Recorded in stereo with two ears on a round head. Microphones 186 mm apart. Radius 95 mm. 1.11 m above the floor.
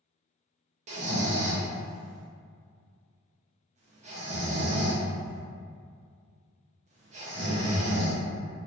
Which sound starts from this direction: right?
Snoring, at 0.9 s.